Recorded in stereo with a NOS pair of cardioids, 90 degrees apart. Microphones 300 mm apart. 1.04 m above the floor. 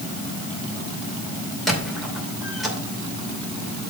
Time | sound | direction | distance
1.7 | a squeak | straight ahead | 2.5 m